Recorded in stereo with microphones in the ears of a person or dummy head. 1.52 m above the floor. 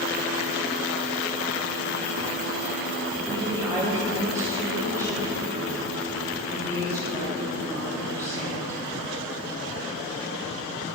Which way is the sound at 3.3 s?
15° right (ahead or behind).